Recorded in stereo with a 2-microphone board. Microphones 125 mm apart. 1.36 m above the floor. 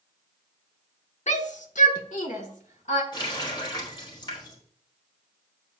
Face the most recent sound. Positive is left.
turn(degrees=40)  # may be behind; listen again after turning